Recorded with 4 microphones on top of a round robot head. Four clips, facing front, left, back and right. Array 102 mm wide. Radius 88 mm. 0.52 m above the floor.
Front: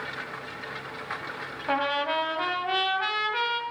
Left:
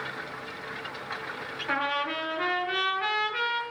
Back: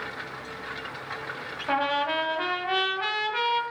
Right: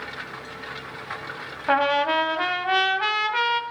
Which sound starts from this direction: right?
A trumpet, at 1.7 s.